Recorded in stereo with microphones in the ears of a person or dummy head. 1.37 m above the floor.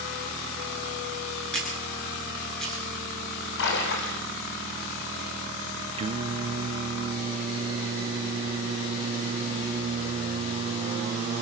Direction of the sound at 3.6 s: 65° left (ahead or behind).